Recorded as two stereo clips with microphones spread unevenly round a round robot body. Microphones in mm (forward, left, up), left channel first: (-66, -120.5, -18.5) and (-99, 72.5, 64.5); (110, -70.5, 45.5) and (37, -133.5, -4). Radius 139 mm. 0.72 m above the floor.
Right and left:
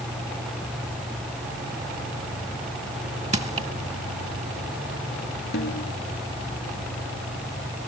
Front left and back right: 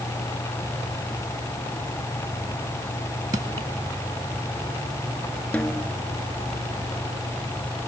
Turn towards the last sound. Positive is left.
turn(degrees=-30)